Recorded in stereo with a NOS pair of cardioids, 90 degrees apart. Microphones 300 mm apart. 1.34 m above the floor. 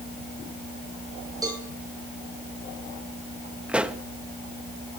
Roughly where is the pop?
Ahead.